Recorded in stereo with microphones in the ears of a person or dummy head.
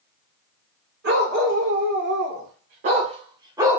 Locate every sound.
1.0 s a dog barking: 55° right (ahead or behind), 1.8 m; by 3.8 s 10° right (ahead or behind), 1.0 m